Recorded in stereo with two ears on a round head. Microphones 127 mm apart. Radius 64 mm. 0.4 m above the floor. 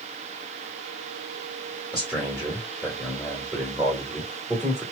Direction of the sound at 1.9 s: 5° right (ahead or behind).